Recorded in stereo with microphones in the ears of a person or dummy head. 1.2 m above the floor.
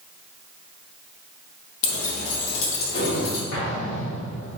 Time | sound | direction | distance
1.8 | keys jangling | 45° left (ahead or behind) | 1.0 m
3.5 | an explosion | 70° left (ahead or behind) | 1.0 m